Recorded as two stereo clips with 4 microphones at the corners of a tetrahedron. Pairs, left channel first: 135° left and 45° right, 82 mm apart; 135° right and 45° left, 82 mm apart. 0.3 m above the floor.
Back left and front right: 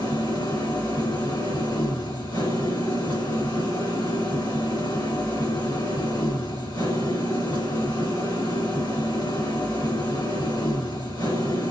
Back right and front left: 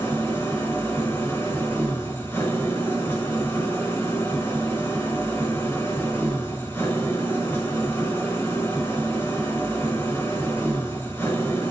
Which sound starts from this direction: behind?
An engine running, at 0.0 s.